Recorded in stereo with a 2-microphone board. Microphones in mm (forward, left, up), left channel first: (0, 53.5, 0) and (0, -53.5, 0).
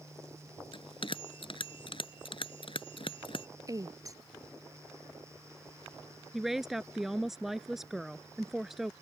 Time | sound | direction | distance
0.7 | a bell | 55° left (ahead or behind) | ?
3.7 | a woman speaking | 35° right (ahead or behind) | ?
6.3 | a woman speaking | 5° right (ahead or behind) | ?